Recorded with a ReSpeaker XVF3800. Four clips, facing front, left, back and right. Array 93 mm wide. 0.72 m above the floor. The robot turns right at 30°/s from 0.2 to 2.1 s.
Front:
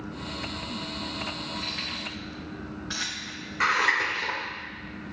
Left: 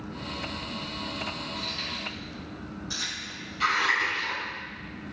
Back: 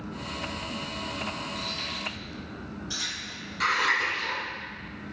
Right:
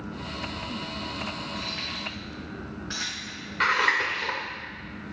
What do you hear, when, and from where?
1.6 s keys jangling: 60° right, 3.5 m; by 4.3 s 45° right, 3.5 m
3.6 s scissors: 65° right, 2.5 m